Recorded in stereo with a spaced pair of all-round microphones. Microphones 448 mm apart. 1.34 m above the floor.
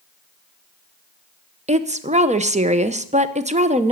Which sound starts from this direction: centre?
A woman speaking, at 1.7 s.